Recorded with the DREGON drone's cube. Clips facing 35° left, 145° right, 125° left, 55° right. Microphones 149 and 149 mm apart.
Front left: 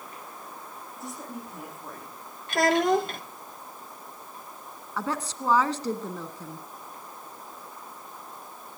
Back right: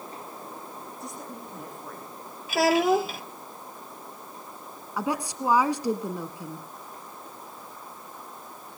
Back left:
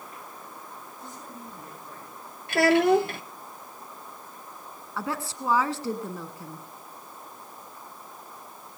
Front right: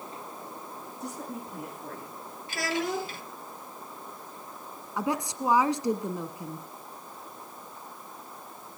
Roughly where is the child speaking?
Behind left.